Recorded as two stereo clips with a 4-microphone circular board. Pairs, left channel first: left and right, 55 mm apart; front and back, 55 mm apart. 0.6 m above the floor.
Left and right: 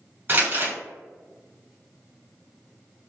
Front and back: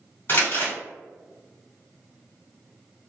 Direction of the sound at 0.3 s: 45° right.